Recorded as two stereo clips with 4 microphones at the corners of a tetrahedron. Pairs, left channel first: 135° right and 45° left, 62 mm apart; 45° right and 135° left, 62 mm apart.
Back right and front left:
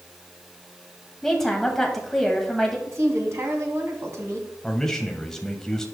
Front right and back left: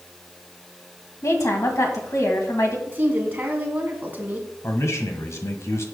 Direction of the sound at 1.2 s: 50° right.